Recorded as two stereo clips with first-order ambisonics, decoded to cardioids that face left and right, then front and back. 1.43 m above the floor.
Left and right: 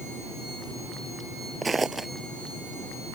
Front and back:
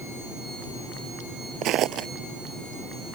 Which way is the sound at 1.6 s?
170° right.